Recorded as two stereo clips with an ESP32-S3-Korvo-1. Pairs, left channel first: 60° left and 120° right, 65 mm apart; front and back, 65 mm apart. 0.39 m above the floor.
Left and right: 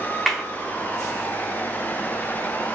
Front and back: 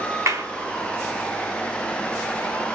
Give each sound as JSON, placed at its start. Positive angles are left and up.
{"t": 0.3, "sound": "a clap", "azimuth_deg": 150, "distance_m": 2.5}